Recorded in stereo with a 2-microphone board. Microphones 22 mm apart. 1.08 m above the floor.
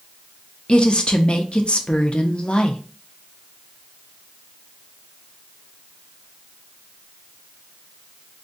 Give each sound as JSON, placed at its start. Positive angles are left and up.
{"t": 0.7, "sound": "a woman speaking", "side_deg": 40, "distance_m": 0.5}